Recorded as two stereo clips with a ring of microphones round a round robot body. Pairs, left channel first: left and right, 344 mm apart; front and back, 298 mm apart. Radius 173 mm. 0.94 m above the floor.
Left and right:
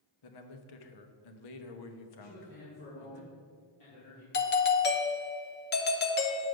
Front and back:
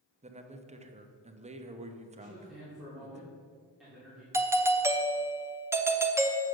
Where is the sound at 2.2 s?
90° left, 2.5 m.